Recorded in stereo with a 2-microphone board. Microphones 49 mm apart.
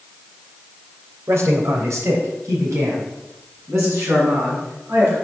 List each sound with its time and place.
1.3 s a man speaking: 65° right (ahead or behind), 3 m; by 5.1 s 60° right (ahead or behind), 8 m